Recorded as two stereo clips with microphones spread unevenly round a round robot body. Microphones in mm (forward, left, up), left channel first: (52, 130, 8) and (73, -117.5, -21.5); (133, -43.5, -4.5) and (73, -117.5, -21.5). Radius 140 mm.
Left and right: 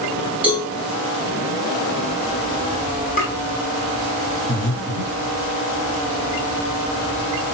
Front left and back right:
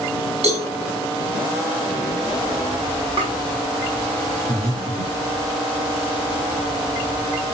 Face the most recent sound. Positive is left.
turn(degrees=180)